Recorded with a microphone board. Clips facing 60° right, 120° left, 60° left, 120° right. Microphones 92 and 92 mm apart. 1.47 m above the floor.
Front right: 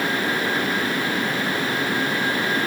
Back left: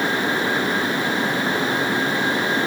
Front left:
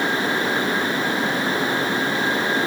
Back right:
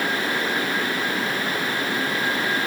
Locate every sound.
Only background noise.